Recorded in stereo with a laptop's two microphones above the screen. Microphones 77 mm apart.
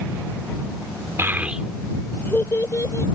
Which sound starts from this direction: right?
A child speaking, at 1.2 s.